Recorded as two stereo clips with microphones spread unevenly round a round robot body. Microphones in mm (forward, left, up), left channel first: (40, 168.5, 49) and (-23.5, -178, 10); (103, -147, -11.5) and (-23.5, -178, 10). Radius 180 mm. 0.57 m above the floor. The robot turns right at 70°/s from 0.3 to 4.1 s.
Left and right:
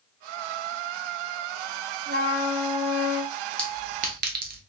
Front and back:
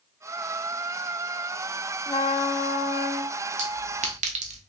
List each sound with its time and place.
2.1 s a trumpet: 45° right, 0.7 m; by 3.3 s 45° left, 0.7 m
3.6 s a clink: 170° left, 0.5 m; by 4.6 s 155° right, 0.5 m